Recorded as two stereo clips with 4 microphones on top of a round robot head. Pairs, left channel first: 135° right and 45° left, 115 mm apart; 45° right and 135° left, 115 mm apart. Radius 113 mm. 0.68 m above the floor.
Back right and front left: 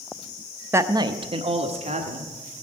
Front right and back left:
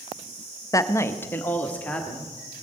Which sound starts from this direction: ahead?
A woman speaking, at 0.7 s.